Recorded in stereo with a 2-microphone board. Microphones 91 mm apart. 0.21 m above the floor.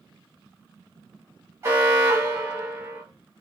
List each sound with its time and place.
1.6 s an alarm: 30° right (ahead or behind), 1.2 m